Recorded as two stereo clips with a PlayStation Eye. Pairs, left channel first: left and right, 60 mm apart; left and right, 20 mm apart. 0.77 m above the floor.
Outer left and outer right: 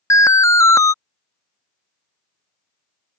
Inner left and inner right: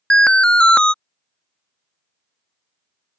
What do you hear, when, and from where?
0.1 s an alarm: 60° left (ahead or behind)